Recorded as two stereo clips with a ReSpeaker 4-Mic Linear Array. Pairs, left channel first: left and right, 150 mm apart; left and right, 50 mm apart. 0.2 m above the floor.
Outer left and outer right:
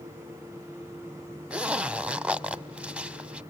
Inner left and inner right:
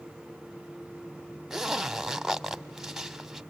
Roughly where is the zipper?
Centre.